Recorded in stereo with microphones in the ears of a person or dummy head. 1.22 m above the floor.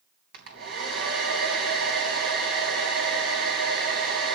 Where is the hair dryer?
60° right (ahead or behind), 3 m.